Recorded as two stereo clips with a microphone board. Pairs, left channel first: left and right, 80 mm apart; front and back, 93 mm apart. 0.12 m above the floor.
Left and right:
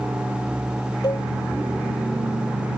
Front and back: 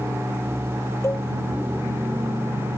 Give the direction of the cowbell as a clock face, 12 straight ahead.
10 o'clock.